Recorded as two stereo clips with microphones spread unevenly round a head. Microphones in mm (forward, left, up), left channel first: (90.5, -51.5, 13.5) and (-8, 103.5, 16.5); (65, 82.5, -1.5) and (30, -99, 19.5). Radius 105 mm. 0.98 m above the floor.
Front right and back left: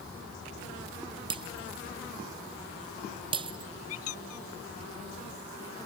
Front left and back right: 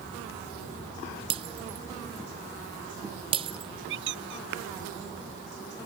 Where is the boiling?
No boiling in this recording.